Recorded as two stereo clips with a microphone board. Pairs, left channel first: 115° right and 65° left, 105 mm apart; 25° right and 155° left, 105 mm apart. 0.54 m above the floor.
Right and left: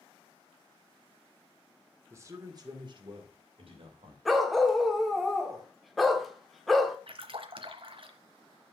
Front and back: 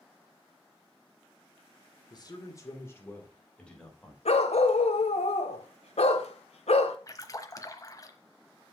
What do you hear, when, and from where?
2.1 s a man speaking: 10° left, 2.0 m; by 4.2 s 65° left, 3 m
4.2 s a dog barking: 25° right, 1.0 m
7.1 s a splash: 35° left, 1.0 m